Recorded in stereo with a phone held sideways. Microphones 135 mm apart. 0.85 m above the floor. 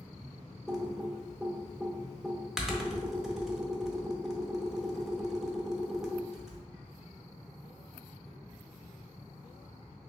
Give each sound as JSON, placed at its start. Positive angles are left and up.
{"t": 0.7, "sound": "typing on a keyboard", "side_deg": -5, "distance_m": 0.6}